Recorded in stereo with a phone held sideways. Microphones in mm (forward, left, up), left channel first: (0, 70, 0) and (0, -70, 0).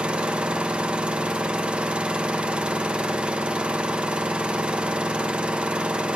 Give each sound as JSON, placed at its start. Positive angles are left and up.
{"t": 0.0, "sound": "an engine running", "side_deg": -5, "distance_m": 0.7}